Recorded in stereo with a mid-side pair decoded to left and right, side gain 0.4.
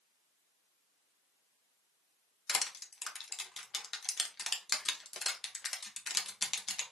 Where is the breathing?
I don't hear breathing.